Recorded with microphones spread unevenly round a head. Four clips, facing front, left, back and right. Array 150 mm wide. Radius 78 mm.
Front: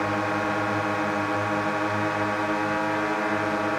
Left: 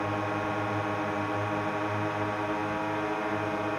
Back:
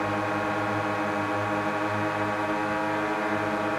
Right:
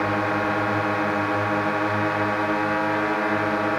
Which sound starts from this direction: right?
A drone, at 0.0 s.